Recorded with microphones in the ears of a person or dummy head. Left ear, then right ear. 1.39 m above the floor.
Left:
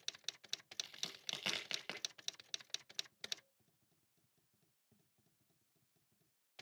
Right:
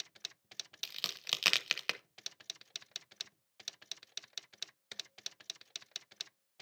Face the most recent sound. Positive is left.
turn(degrees=-60)  # may be behind; listen again after turning